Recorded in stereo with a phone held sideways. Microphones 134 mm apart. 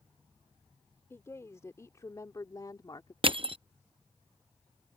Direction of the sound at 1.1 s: 20° left (ahead or behind).